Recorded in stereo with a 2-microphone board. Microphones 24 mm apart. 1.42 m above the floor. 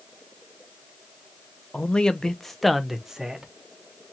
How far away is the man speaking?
About 0.8 m.